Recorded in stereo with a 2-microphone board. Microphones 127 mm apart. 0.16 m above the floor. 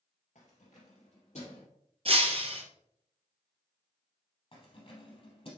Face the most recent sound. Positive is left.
turn(degrees=50)  # may be behind; listen again after turning